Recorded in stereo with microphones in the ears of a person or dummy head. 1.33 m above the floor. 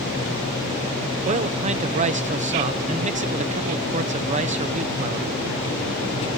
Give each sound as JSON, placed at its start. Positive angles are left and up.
{"t": 1.2, "sound": "a man speaking", "side_deg": -35, "distance_m": 0.7}